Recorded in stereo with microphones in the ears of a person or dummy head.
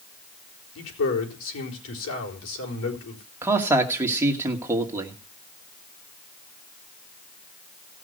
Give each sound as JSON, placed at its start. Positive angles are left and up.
{"t": 0.8, "sound": "a man speaking", "side_deg": 75, "distance_m": 4.0}
{"t": 3.4, "sound": "a man speaking", "side_deg": -15, "distance_m": 2.5}